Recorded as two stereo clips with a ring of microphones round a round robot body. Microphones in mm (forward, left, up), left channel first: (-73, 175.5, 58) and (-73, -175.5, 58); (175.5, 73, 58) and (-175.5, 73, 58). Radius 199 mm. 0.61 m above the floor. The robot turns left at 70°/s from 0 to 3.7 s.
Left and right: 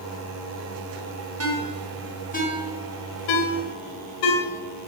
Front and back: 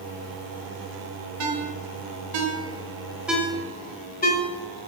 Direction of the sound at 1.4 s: 135° right.